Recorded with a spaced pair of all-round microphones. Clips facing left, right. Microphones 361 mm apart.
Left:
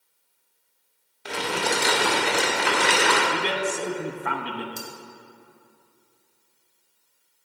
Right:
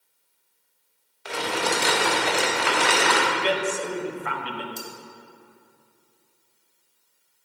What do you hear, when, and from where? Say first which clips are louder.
1.2 s crumpling: even; 40° left (ahead or behind), 1.9 m
3.3 s a man speaking: right 1 dB; 50° left (ahead or behind), 1.0 m
4.8 s cutlery clinking: even; 25° left (ahead or behind), 1.3 m